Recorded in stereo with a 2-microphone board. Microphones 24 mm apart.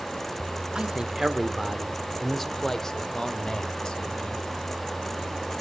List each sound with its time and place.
0.8 s a man speaking: 35° right (ahead or behind), 1.4 m; by 4.4 s 45° left (ahead or behind), 2.5 m